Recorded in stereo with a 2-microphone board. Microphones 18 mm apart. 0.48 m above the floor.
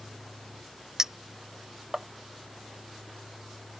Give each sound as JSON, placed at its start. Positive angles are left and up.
{"t": 1.0, "sound": "a clink", "side_deg": -30}